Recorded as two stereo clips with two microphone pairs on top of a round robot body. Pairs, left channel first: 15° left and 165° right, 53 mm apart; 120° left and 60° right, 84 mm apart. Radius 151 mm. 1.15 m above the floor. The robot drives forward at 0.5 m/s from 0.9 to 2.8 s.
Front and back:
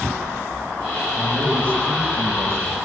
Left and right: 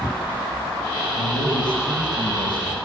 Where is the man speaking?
145° left, 5.5 m.